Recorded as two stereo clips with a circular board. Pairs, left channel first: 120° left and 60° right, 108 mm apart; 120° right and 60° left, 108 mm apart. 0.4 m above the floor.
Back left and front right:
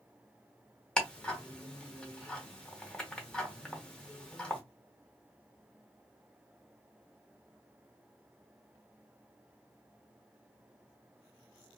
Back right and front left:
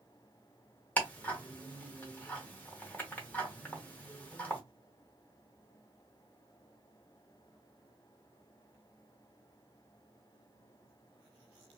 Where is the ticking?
170° right, 1.0 m.